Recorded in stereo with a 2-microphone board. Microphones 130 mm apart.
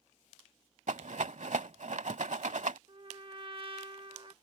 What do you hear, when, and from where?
0.9 s a rattle: 70° right (ahead or behind)
2.9 s a trumpet: 40° right (ahead or behind)